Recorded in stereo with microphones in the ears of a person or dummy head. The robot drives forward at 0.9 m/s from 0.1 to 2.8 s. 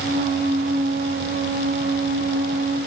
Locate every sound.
Only background noise.